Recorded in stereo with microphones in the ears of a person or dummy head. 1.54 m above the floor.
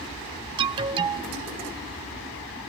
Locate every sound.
0.6 s an alarm: 25° right (ahead or behind)